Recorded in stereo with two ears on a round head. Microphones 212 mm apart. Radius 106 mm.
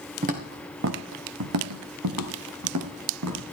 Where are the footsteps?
35° right (ahead or behind), 2 m; by 3.4 s 75° right (ahead or behind), 4.5 m.